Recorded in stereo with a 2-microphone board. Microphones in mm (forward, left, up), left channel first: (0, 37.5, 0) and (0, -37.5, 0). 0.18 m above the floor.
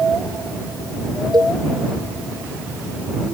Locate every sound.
1.3 s a cowbell: 70° right (ahead or behind)